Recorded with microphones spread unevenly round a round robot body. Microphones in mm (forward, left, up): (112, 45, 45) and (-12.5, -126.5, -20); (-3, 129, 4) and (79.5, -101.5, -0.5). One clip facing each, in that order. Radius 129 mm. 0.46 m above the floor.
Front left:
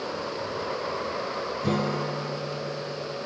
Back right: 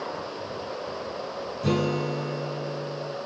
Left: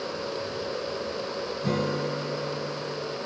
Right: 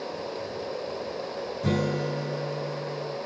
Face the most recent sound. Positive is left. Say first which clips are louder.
# back right 3 dB, right 1 dB
turn(degrees=-50)